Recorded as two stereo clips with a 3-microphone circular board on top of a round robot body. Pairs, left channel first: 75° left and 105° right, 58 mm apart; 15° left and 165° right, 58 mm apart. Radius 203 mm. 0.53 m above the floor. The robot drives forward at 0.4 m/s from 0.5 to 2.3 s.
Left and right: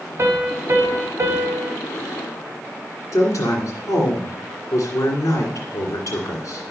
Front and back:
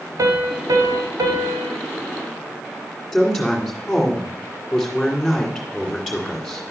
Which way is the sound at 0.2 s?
150° right.